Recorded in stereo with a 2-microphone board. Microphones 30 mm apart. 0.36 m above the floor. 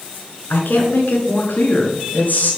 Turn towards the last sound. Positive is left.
turn(degrees=60)  # may be behind; listen again after turning